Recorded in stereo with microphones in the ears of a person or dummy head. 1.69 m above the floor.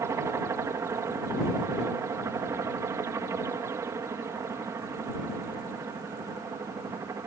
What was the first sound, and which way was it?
A helicopter, 20° right (ahead or behind).